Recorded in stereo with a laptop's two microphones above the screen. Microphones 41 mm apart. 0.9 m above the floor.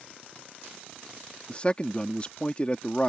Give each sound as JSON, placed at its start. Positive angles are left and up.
{"t": 1.5, "sound": "a man speaking", "side_deg": 30}